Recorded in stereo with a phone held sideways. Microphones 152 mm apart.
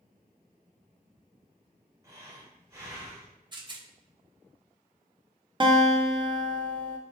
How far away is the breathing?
About 0.9 m.